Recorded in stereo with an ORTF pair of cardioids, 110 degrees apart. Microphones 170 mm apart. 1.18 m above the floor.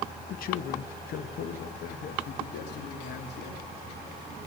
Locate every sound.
0.3 s a man speaking: 55° left, 0.8 m; by 3.6 s 75° left, 3 m